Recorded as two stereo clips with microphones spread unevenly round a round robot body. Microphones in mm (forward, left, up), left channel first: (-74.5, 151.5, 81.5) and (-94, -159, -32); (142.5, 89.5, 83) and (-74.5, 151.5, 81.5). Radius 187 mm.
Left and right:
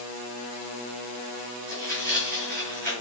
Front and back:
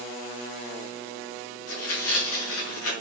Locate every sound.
1.7 s tearing paper: 25° right, 5 m